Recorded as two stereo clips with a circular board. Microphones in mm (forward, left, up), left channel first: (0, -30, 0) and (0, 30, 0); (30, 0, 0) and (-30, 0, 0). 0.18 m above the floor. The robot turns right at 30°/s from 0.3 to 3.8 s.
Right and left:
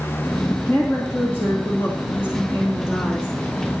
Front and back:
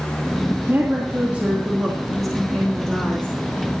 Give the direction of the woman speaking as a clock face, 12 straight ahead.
5 o'clock.